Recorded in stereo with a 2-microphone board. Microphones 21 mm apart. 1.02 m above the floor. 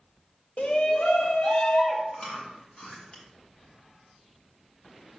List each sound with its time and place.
0.6 s a shout: 70° left (ahead or behind), 1.3 m; by 2.0 s 65° left (ahead or behind), 2.5 m
2.1 s chewing: 50° left (ahead or behind), 2 m